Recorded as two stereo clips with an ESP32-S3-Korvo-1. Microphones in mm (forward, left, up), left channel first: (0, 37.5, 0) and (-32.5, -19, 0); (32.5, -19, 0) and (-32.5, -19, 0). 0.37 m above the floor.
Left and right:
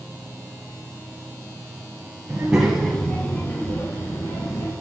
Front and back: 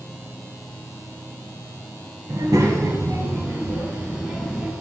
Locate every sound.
2.3 s a child speaking: straight behind, 1.5 m; by 4.7 s 100° left, 3.5 m